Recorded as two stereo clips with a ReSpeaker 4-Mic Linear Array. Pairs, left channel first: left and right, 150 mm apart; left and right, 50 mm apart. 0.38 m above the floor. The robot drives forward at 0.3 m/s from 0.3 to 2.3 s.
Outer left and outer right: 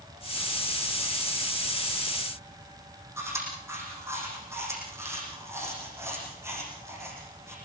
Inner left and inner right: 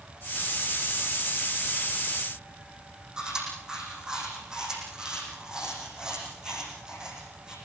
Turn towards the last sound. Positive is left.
turn(degrees=-20)  # may be behind; listen again after turning